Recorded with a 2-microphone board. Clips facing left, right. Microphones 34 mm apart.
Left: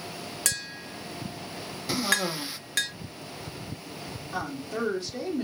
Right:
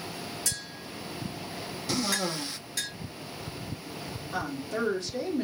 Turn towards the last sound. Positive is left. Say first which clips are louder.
# even
turn(degrees=5)  # may be behind; listen again after turning